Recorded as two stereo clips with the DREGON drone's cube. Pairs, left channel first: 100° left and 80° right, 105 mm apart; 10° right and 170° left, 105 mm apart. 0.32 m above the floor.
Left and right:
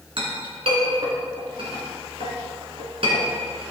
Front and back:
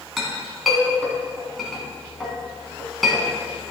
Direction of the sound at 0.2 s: 100° right.